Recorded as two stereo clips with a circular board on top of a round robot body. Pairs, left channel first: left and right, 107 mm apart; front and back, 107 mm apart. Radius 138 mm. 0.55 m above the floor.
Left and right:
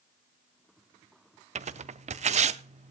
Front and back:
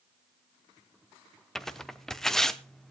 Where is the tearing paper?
85° right, 0.5 m.